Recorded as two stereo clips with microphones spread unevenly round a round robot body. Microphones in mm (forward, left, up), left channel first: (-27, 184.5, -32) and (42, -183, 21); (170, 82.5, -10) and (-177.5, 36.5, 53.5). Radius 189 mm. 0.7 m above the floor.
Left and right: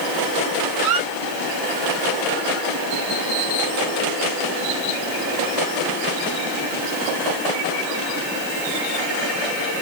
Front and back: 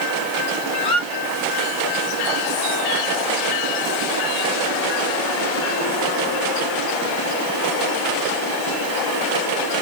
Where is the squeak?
70° right, 0.7 m.